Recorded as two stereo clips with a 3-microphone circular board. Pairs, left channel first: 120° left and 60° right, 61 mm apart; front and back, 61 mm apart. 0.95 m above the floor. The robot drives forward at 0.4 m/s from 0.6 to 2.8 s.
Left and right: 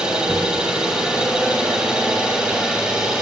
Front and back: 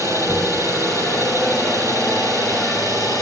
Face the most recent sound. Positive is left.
turn(degrees=15)